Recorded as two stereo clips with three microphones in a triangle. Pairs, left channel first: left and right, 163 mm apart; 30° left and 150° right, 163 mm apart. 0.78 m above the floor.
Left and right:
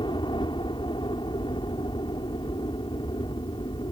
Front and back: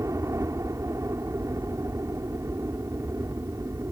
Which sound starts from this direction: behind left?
A helicopter, at 0.0 s.